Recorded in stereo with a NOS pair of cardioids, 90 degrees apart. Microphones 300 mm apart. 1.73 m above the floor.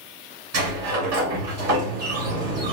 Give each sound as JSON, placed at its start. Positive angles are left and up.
{"t": 0.5, "sound": "a sliding door", "azimuth_deg": -55, "distance_m": 2.5}